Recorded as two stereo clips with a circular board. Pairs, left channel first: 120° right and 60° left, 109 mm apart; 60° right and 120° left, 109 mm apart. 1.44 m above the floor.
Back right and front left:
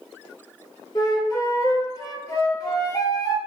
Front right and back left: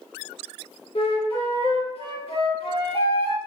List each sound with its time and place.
0.9 s a flute: 70° right, 0.7 m